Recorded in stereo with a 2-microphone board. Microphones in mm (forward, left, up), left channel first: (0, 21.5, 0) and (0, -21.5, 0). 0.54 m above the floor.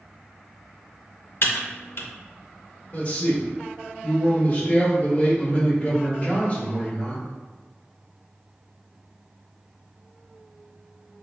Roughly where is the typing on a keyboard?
Left.